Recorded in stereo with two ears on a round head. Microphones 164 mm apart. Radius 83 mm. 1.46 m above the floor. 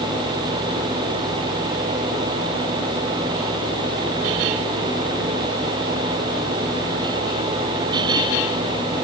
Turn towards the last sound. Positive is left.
No sound to turn to.